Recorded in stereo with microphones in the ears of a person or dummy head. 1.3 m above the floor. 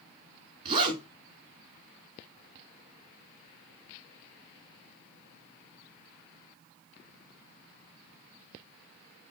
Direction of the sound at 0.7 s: 30° right (ahead or behind).